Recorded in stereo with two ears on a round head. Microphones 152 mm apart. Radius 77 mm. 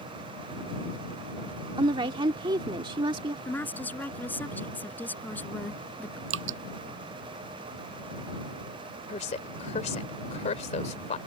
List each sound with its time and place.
1.8 s a woman speaking: 30° right (ahead or behind)
3.5 s a woman speaking: 10° left (ahead or behind)
6.3 s dripping: 80° right
9.1 s a woman speaking: 40° left (ahead or behind)